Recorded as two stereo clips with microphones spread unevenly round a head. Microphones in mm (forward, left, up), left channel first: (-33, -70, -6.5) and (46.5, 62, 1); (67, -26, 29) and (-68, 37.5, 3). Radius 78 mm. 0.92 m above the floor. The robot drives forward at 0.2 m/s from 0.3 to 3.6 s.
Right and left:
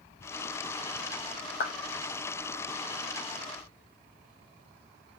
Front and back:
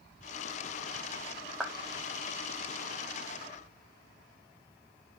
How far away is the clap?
About 0.7 m.